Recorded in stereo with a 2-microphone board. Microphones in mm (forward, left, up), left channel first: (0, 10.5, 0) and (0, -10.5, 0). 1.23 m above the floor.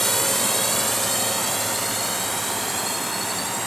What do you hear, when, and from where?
0.0 s a drone: 10° left (ahead or behind); by 3.7 s 5° right (ahead or behind)